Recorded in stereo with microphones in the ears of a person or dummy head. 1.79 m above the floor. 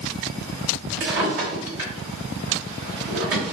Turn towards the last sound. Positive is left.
turn(degrees=-40)  # may be behind; listen again after turning